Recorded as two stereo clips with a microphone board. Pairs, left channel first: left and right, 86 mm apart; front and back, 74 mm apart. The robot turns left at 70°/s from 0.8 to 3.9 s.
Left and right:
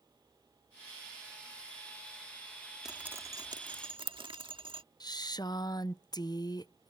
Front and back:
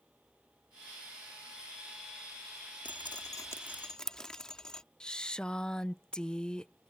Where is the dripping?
5° right; by 4.8 s 80° right.